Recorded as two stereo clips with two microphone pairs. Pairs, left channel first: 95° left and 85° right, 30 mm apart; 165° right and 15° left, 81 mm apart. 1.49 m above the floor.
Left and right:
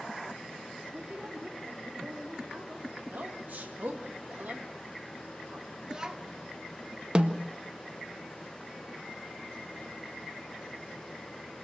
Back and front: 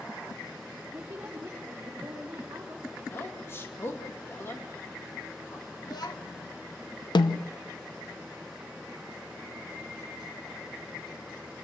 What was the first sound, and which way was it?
A woman speaking, 40° right.